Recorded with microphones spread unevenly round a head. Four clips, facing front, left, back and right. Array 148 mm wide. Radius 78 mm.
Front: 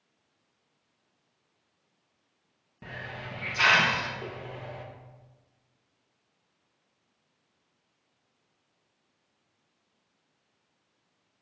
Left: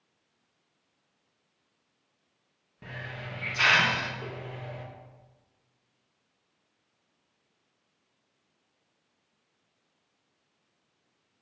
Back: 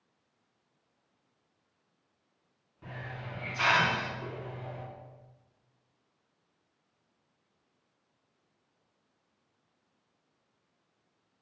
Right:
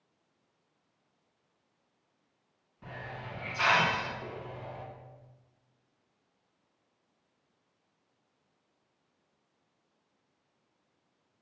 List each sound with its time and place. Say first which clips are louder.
2.8 s a hiss: left 1 dB, front 2 dB; 45° left, 2.5 m